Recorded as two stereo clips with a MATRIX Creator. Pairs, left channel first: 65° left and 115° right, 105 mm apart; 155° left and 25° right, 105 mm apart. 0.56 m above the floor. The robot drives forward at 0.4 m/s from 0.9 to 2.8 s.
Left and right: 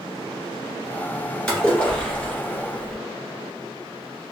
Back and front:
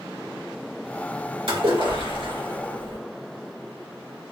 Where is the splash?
10° right, 2 m; by 3.0 s 15° right, 1.7 m.